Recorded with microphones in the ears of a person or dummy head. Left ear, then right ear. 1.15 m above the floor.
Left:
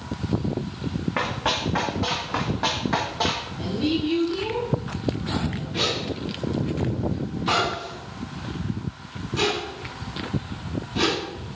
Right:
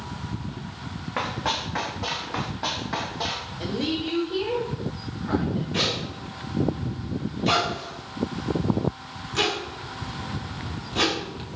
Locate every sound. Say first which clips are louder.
1.2 s running footsteps: left 2 dB; centre (ahead or behind), 3 m; by 3.5 s 25° left (ahead or behind), 2 m
3.6 s a woman speaking: left 2 dB; 50° right (ahead or behind), 4 m
5.7 s a zipper: left 1 dB; 40° right (ahead or behind), 4 m